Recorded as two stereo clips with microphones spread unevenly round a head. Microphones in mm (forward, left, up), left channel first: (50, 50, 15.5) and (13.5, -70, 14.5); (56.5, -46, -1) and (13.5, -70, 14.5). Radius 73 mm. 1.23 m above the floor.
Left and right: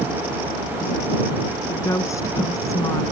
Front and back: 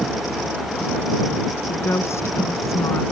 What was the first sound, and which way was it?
A woman speaking, 10° left.